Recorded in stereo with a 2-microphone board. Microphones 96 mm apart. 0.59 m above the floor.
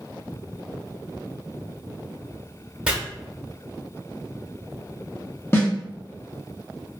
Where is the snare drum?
25° left (ahead or behind), 0.8 m.